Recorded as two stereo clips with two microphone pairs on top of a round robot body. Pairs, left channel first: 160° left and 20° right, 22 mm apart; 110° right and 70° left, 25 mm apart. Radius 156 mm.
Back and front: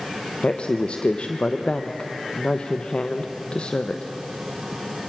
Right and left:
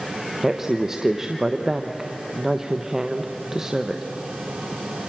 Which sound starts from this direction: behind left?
A woman speaking, at 0.4 s.